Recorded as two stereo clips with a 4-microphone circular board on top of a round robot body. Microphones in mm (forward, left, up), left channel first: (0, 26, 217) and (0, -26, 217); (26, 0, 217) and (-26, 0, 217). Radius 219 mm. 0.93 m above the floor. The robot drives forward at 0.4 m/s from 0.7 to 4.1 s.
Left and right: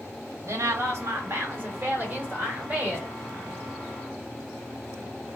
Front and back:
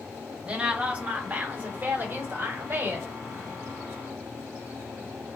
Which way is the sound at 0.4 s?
110° right.